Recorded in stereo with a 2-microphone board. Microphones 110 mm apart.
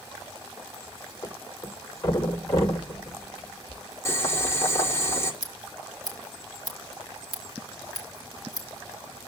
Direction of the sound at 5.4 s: 35° left (ahead or behind).